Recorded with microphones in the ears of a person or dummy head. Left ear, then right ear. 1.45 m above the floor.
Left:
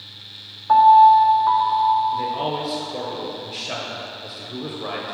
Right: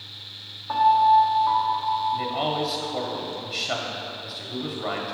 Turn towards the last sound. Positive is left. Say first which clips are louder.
# left 2 dB
turn(degrees=0)  # may be behind; listen again after turning